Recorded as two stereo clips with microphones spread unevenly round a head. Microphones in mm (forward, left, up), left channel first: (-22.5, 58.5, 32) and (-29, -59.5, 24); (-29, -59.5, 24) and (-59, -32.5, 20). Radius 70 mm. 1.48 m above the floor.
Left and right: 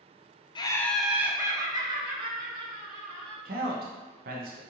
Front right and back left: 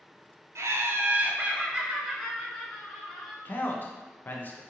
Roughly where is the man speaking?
Right.